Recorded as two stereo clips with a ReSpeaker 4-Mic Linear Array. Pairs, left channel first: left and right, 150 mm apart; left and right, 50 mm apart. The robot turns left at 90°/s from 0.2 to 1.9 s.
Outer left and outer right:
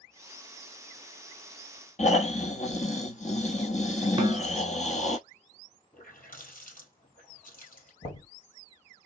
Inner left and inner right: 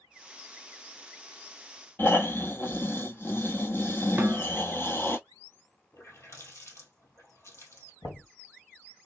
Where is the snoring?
50° left (ahead or behind), 0.9 m.